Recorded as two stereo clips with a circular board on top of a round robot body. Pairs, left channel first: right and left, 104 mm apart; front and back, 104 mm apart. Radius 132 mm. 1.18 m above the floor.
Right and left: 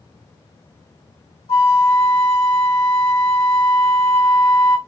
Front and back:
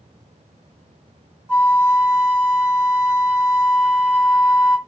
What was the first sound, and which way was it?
A flute, 105° right.